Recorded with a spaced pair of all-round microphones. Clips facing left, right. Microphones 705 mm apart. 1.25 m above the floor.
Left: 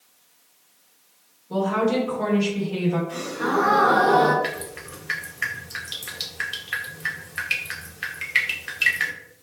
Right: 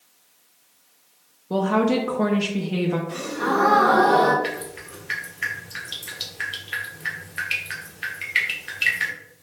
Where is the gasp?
60° right (ahead or behind), 0.8 m.